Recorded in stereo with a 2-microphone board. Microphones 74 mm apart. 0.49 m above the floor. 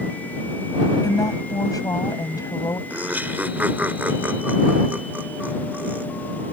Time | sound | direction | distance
1.0 | a woman speaking | 60° left (ahead or behind) | ?
2.9 | laughter | 25° right (ahead or behind) | ?